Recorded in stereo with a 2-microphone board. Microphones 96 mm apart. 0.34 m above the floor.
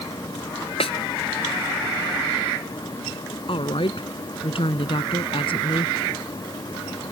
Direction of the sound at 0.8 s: 80° left.